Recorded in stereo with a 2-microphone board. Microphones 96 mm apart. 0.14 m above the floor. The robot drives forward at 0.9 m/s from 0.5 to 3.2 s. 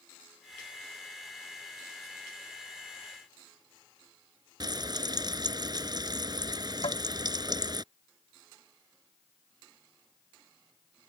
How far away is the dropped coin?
I don't hear a dropped coin.